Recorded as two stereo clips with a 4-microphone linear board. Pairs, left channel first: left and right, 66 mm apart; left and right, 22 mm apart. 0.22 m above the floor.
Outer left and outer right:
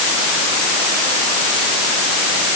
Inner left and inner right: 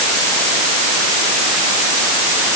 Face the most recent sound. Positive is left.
No sound to turn to.